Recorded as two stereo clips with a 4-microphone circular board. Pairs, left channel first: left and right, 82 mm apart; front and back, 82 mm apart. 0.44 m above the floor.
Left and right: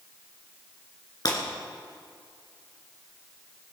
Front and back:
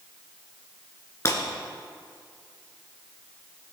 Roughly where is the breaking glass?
Ahead left.